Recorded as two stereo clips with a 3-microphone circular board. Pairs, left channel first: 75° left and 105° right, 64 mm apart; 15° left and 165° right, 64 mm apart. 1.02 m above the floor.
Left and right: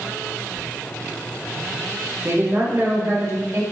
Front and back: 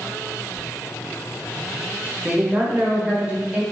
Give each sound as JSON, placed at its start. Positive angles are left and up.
{"t": 0.5, "sound": "whispering", "azimuth_deg": 120, "distance_m": 0.9}
{"t": 2.2, "sound": "a woman speaking", "azimuth_deg": -110, "distance_m": 0.9}